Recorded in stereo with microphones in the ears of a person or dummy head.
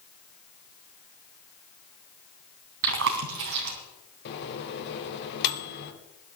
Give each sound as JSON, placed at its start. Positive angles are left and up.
{"t": 2.8, "sound": "chewing", "side_deg": -65, "distance_m": 3.0}
{"t": 4.2, "sound": "a microwave", "side_deg": 60, "distance_m": 2.0}